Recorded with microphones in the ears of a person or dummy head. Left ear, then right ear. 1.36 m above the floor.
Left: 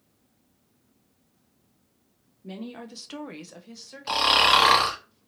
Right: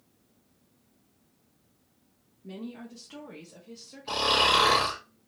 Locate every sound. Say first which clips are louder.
2.4 s a woman speaking: left 3 dB; 30° left (ahead or behind), 0.7 m; by 4.4 s 35° left (ahead or behind), 1.2 m
4.1 s snoring: left 4 dB; 55° left (ahead or behind), 1.0 m